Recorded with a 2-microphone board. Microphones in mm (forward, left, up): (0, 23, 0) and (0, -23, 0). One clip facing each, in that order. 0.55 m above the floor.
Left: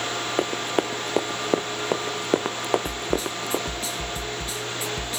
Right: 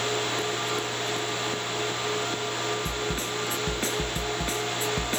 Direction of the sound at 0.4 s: 50° left (ahead or behind).